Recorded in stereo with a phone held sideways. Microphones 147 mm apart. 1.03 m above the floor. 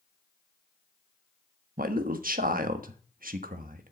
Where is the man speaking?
75° right (ahead or behind), 1.2 m.